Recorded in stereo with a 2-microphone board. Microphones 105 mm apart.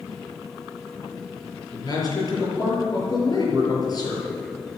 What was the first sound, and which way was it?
A man speaking, 40° left (ahead or behind).